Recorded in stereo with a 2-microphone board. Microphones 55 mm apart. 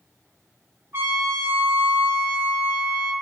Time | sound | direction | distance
0.9 | a trumpet | 50° right (ahead or behind) | 0.5 m